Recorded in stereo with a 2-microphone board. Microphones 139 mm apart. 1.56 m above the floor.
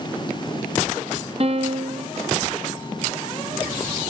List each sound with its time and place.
1.4 s a piano: 45° right (ahead or behind), 1.3 m